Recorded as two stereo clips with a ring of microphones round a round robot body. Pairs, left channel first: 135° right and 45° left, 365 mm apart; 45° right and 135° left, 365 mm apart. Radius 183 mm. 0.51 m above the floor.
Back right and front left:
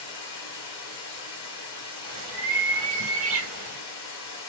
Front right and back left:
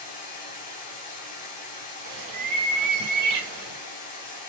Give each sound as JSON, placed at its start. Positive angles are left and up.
{"t": 0.0, "sound": "running water", "azimuth_deg": -75, "distance_m": 3.0}
{"t": 2.0, "sound": "a bird", "azimuth_deg": 100, "distance_m": 2.5}